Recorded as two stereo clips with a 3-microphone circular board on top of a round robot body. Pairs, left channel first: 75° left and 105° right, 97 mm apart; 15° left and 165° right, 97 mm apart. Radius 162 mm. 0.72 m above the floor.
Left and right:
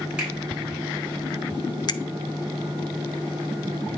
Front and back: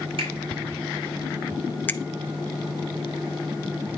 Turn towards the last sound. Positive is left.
turn(degrees=75)